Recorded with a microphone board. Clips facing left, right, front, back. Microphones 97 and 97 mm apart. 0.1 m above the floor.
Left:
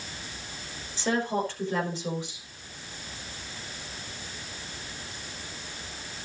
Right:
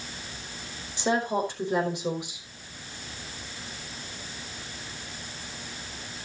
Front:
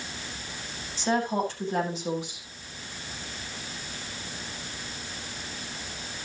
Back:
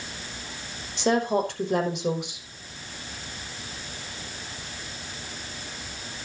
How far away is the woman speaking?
About 5 m.